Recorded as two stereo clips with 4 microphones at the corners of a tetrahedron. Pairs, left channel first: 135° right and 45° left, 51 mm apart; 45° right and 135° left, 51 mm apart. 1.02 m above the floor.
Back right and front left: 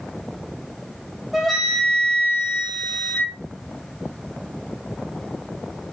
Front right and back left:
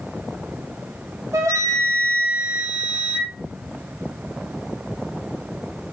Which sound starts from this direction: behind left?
A flute, at 1.3 s.